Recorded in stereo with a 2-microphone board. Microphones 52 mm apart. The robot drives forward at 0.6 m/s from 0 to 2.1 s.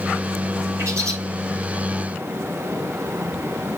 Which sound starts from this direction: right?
A bird, at 0.8 s.